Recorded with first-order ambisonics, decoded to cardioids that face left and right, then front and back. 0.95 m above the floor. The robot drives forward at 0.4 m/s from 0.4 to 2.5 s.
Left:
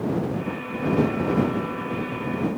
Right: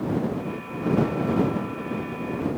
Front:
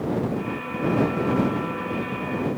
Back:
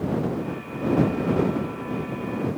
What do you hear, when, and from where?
Only background noise.